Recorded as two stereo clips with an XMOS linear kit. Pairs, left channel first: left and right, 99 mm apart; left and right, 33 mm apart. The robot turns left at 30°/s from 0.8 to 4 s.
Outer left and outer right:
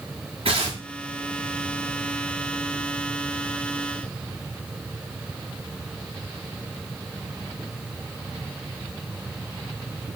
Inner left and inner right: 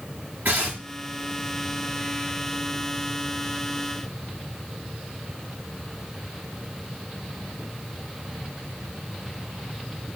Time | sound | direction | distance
0.5 | tearing paper | 70° right (ahead or behind) | 4.5 m